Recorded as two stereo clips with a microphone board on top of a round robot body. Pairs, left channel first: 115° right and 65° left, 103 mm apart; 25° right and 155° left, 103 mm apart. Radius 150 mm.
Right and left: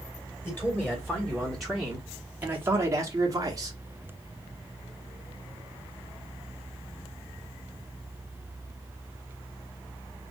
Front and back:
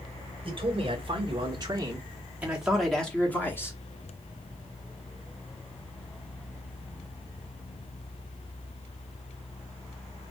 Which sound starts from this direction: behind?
A man speaking, at 0.4 s.